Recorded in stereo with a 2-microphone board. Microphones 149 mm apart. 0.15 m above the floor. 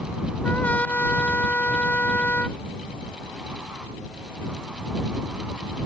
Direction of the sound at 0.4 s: 10° left (ahead or behind).